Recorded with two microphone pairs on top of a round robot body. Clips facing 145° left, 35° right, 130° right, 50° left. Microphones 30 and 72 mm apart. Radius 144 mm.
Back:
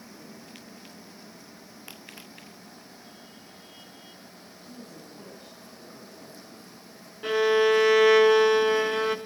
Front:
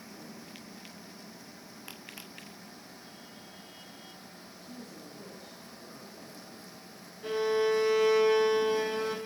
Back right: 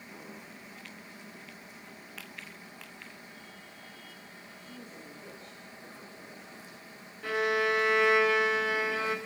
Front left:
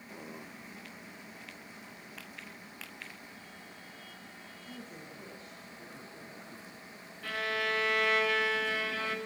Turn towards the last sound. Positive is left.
turn(degrees=155)